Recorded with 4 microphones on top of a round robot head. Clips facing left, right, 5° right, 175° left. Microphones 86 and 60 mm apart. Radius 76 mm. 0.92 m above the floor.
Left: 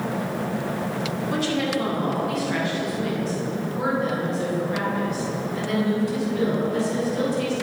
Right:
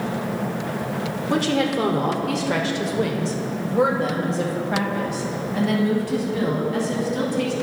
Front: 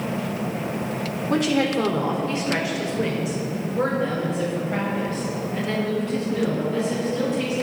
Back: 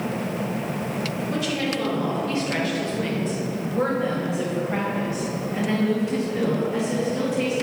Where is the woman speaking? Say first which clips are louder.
Right 4 dB, front 7 dB; 45° right, 2.5 m; by 7.5 s 115° right, 8.5 m.